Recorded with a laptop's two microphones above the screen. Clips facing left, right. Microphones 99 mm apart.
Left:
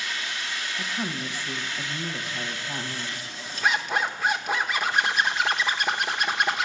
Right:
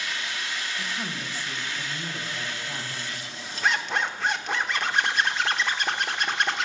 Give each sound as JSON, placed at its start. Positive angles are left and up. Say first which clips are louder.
{"t": 0.8, "sound": "a woman speaking", "louder": "left 2 dB", "side_deg": 15, "distance_m": 0.9}
{"t": 3.6, "sound": "a zipper", "louder": "left 1 dB", "side_deg": 5, "distance_m": 0.9}